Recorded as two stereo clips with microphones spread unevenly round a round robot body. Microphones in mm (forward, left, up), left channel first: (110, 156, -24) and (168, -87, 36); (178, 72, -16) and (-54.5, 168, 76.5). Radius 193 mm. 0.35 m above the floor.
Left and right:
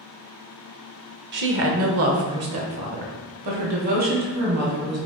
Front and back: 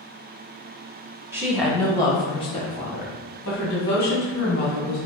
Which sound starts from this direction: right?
A woman speaking, at 1.3 s.